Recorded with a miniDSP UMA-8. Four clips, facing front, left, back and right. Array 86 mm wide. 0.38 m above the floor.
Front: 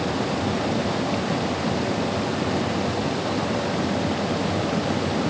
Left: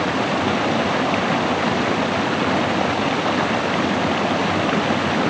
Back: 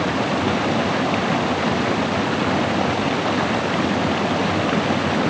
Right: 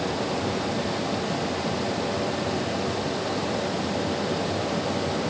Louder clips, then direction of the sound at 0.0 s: Left 7 dB, back 4 dB; 120° left.